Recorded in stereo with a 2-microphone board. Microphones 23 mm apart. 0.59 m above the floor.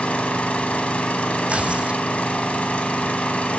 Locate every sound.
0.0 s an engine running: 75° left (ahead or behind), 4 m
1.5 s tearing paper: 60° right (ahead or behind), 3 m